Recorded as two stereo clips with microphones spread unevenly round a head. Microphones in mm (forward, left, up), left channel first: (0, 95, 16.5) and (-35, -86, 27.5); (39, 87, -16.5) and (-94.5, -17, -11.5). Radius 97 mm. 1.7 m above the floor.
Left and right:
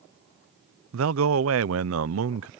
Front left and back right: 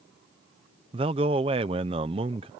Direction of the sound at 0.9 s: 75° right.